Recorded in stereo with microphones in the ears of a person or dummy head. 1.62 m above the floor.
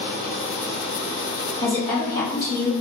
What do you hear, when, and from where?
1.6 s a woman speaking: 30° left (ahead or behind), 1.5 m